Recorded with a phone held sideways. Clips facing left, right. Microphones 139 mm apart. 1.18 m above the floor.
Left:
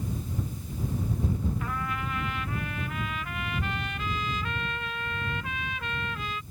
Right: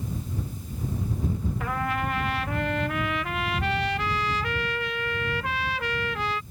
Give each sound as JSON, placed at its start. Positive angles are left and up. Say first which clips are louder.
{"t": 1.6, "sound": "a trumpet", "louder": "right 5 dB", "side_deg": -80}